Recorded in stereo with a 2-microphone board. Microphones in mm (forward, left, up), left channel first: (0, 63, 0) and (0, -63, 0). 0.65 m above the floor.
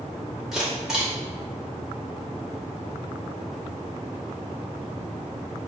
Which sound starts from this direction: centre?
A camera shutter, at 0.5 s.